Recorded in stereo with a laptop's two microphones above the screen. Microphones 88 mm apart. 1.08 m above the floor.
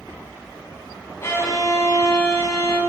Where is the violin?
30° left (ahead or behind), 1.3 m.